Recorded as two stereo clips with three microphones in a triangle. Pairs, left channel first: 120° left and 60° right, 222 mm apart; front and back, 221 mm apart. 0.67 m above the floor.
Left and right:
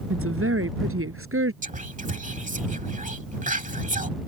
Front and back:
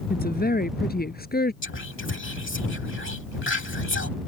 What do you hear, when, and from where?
0.1 s a woman speaking: 45° right
1.6 s whispering: 10° right